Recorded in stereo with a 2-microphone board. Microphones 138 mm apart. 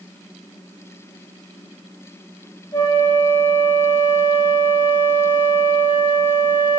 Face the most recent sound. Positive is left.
turn(degrees=35)  # may be behind; listen again after turning